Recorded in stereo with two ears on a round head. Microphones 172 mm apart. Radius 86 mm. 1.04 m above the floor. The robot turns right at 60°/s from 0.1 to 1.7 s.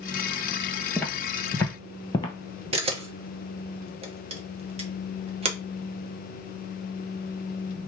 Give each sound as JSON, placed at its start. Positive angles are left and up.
{"t": 1.0, "sound": "footsteps", "side_deg": 5, "distance_m": 1.0}
{"t": 2.7, "sound": "a camera shutter", "side_deg": -30, "distance_m": 0.8}